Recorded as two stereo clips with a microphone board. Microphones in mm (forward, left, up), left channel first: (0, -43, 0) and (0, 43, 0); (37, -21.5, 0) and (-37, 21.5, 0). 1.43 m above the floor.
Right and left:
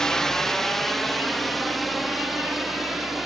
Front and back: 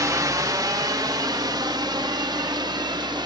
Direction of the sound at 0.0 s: 170° right.